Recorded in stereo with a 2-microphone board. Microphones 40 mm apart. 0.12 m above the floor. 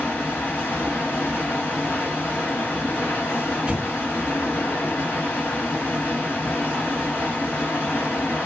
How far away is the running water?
About 1.4 m.